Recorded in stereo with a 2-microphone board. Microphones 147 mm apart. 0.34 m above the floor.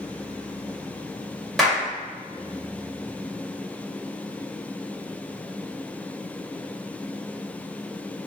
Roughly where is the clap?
Centre.